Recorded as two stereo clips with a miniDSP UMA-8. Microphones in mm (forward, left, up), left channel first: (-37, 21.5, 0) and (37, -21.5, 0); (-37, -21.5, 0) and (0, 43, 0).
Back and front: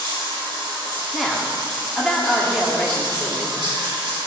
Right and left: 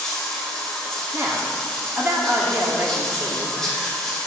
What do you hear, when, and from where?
0.0 s running water: 35° right, 2 m
1.1 s a woman speaking: 65° left, 1.3 m